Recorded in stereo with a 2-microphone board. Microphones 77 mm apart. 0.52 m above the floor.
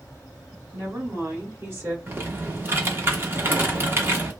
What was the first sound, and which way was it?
A woman speaking, 40° right (ahead or behind).